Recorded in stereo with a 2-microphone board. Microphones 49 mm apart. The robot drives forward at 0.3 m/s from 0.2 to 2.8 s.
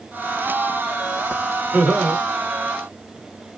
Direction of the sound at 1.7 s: 30° right (ahead or behind).